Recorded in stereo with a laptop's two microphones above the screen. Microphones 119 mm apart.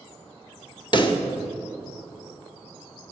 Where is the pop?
45° left (ahead or behind), 0.8 m.